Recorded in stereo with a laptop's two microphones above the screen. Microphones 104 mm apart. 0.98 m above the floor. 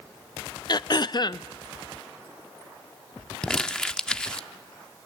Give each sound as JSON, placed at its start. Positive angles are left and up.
{"t": 0.7, "sound": "throat clearing", "side_deg": 40, "distance_m": 0.5}
{"t": 3.4, "sound": "crumpling", "side_deg": 10, "distance_m": 0.6}